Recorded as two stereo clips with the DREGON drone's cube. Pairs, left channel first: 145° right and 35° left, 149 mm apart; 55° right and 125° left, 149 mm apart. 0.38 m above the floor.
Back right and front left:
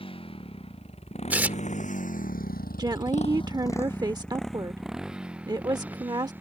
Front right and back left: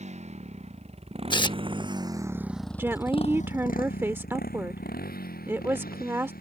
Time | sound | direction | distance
0.0 | a motorcycle | 165° left | ?
1.3 | tearing paper | 35° right | ?
2.8 | a woman speaking | 65° left | ?